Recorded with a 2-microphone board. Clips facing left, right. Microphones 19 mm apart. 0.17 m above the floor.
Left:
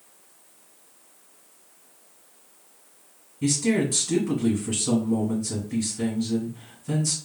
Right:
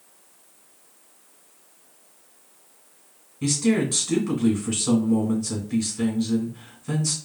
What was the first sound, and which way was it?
A man speaking, 35° right (ahead or behind).